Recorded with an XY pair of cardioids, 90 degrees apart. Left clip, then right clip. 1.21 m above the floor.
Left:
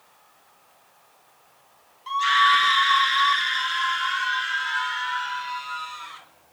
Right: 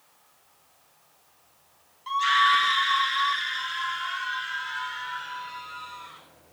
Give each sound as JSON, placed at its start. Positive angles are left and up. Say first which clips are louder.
{"t": 2.1, "sound": "a scream", "louder": "left 2 dB", "azimuth_deg": 5, "distance_m": 1.2}